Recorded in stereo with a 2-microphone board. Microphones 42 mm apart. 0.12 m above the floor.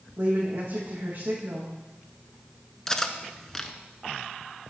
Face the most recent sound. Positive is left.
turn(degrees=15)  # may be behind; listen again after turning